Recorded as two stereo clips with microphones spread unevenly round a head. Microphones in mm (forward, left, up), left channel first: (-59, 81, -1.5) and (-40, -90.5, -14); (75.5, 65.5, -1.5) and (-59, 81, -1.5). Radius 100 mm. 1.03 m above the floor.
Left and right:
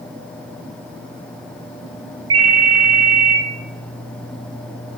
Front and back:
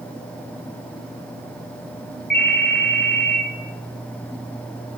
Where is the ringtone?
60° right, 1.3 m.